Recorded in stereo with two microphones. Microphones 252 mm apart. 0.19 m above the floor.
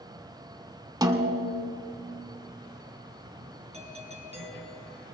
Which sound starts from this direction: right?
A doorbell, at 3.7 s.